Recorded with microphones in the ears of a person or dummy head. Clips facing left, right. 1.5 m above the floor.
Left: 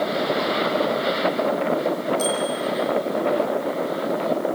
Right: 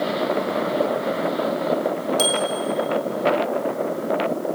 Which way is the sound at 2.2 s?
55° right (ahead or behind).